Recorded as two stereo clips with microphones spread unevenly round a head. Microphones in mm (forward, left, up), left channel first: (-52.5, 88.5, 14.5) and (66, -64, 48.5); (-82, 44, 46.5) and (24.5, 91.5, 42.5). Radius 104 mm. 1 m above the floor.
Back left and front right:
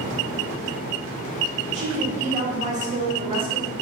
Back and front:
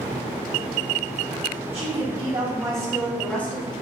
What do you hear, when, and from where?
1.7 s a woman speaking: 5° left, 1.3 m; by 3.7 s 125° right, 0.8 m